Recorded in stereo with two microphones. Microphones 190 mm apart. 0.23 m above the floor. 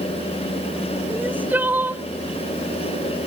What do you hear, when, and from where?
1.1 s crying: 10° right (ahead or behind)